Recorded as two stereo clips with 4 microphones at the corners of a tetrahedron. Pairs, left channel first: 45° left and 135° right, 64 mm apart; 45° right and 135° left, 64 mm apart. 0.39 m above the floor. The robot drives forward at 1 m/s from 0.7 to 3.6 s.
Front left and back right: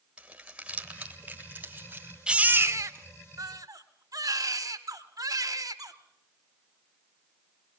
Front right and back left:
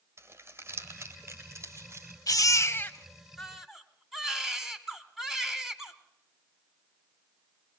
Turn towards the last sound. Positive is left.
turn(degrees=-145)